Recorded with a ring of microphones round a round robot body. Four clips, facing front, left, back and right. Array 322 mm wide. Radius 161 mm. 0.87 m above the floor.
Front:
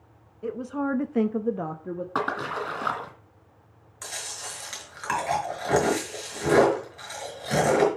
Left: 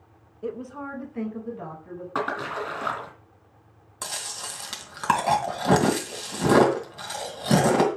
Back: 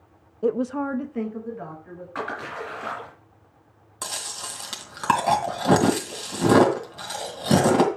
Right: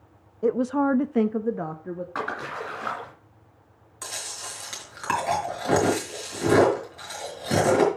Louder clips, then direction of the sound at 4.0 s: Left 2 dB, back 4 dB; 150° left.